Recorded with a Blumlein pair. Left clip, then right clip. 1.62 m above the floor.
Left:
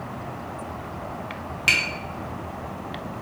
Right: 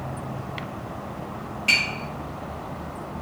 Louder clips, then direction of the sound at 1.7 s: Even; 45° left.